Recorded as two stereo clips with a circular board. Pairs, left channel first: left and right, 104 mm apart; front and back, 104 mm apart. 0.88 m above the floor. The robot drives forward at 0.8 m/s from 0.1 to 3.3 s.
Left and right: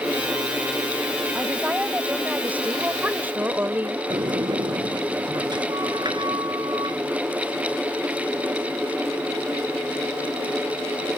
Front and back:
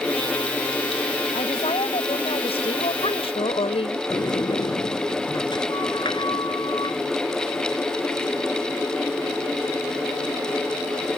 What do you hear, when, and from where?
1.4 s a woman speaking: 10° right; by 4.0 s 15° right
4.1 s a sliding door: 45° right